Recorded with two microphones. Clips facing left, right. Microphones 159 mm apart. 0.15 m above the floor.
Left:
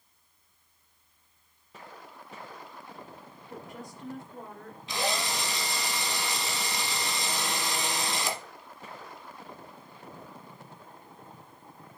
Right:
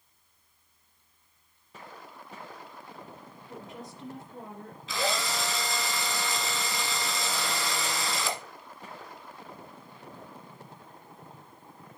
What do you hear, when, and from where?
3.5 s a woman speaking: 20° right (ahead or behind), 2.5 m
4.9 s a drill: 15° left (ahead or behind), 1.7 m